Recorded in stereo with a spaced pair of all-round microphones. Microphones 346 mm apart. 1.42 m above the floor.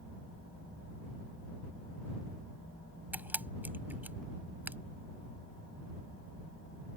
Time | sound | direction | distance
3.1 | a camera shutter | 5° right (ahead or behind) | ?